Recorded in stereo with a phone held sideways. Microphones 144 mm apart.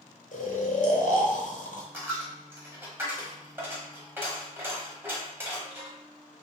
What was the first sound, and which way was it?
Snoring, 65° left (ahead or behind).